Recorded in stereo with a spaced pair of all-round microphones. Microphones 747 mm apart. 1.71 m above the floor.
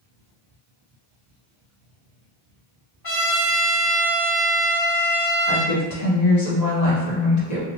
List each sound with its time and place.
3.0 s a trumpet: 30° left (ahead or behind), 1.6 m
5.5 s a woman speaking: 60° left (ahead or behind), 1.2 m